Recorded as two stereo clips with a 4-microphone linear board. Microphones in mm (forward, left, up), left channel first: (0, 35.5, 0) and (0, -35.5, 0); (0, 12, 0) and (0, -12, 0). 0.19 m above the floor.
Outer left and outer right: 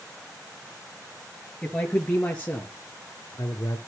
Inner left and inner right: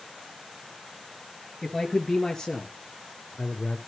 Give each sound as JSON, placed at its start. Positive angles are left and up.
{"t": 1.6, "sound": "a man speaking", "side_deg": 10, "distance_m": 3.0}